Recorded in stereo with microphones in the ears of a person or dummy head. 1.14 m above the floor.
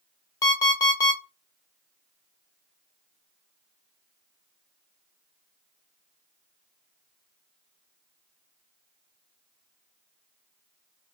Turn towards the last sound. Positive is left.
turn(degrees=20)  # may be behind; listen again after turning